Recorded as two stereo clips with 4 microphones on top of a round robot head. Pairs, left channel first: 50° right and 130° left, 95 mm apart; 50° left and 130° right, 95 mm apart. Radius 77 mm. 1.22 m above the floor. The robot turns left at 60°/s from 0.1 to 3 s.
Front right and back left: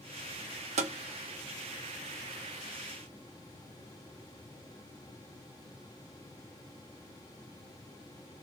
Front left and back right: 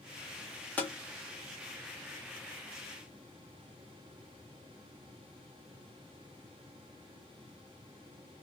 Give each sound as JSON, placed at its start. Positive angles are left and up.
{"t": 0.8, "sound": "tapping", "azimuth_deg": 130, "distance_m": 0.8}